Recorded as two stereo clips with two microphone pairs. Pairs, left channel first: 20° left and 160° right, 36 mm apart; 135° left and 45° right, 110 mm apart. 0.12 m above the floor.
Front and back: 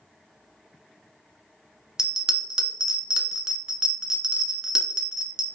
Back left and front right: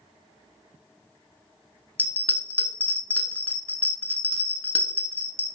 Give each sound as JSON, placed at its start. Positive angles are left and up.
{"t": 2.0, "sound": "a bell", "azimuth_deg": -170, "distance_m": 0.7}